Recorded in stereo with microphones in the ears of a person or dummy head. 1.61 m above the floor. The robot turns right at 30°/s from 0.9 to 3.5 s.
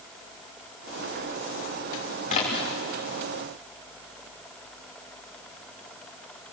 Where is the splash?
40° left (ahead or behind), 3.5 m; by 2.7 s 30° left (ahead or behind), 3.5 m.